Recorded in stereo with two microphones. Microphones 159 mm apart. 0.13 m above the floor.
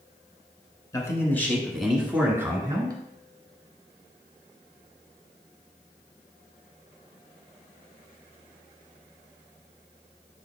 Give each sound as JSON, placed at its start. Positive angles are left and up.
{"t": 0.9, "sound": "a man speaking", "side_deg": 20, "distance_m": 1.3}